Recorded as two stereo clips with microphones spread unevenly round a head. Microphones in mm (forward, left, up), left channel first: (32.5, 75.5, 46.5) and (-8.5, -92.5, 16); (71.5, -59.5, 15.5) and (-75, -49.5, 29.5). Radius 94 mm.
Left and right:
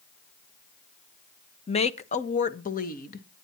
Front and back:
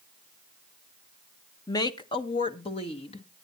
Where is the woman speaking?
30° left, 0.9 m; by 3.3 s 40° left, 1.6 m.